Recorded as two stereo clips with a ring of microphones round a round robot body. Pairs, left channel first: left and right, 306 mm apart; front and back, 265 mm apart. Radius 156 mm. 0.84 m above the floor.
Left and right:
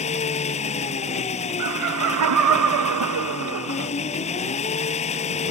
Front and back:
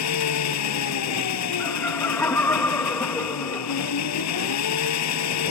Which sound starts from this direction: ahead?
An engine running, at 0.0 s.